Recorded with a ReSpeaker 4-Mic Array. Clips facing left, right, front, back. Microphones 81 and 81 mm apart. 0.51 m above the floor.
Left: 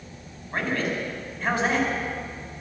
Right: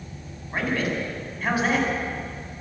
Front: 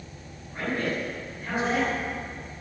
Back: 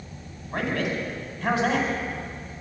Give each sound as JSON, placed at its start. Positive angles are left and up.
{"t": 0.5, "sound": "a man speaking", "azimuth_deg": -175, "distance_m": 4.5}